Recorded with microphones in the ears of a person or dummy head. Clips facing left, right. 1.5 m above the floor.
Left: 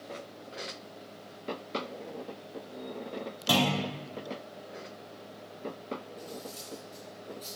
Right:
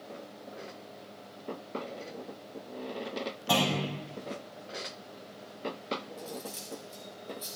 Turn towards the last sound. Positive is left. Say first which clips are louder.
# right 1 dB
turn(degrees=-5)  # may be behind; listen again after turning